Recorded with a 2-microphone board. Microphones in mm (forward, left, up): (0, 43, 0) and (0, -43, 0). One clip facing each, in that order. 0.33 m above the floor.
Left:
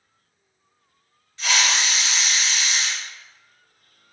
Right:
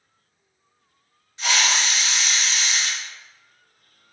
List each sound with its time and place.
1.4 s a hiss: 20° right (ahead or behind), 1.7 m